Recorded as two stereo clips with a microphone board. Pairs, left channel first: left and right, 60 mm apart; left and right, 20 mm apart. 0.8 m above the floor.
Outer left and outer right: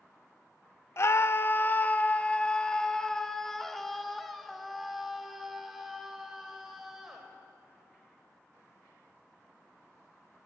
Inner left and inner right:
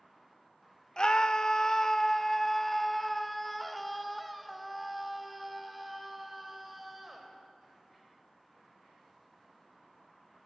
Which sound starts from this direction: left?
A scream, at 1.0 s.